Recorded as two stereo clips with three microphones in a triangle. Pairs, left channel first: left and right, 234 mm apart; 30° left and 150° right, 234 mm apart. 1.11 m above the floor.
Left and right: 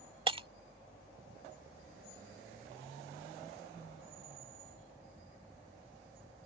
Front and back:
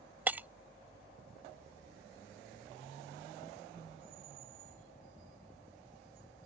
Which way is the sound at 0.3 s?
80° right.